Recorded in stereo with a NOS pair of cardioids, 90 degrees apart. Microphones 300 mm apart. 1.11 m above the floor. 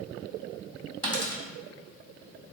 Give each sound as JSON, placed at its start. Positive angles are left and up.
{"t": 1.0, "sound": "a dropped coin", "azimuth_deg": -15, "distance_m": 1.4}